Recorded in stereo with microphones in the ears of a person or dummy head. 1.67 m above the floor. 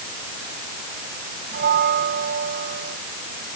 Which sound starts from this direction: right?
A bell, at 1.5 s.